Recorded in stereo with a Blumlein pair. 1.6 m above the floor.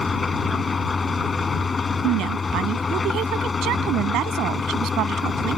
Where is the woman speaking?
35° right.